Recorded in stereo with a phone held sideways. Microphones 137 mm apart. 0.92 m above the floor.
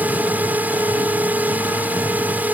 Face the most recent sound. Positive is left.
turn(degrees=-10)  # may be behind; listen again after turning